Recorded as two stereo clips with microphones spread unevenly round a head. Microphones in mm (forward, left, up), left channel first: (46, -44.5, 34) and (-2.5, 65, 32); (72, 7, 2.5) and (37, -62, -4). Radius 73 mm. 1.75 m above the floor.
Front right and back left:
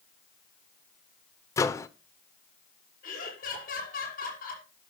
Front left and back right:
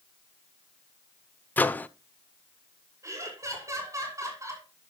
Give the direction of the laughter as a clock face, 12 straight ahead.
2 o'clock.